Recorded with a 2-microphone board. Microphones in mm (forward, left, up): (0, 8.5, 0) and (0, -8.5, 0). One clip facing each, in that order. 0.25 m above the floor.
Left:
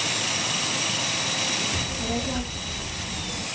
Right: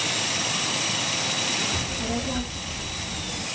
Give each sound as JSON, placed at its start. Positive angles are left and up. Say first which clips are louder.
{"t": 1.7, "sound": "a child speaking", "louder": "even", "side_deg": -15, "distance_m": 0.6}